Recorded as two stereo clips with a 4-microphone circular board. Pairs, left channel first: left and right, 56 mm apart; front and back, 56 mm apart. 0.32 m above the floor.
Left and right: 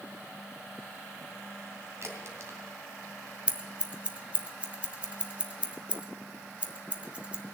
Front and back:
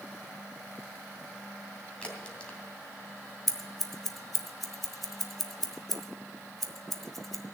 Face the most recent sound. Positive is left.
turn(degrees=-80)